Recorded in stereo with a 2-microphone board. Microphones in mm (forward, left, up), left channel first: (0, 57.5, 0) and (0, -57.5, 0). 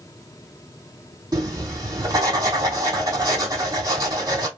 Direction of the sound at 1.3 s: 35° right (ahead or behind).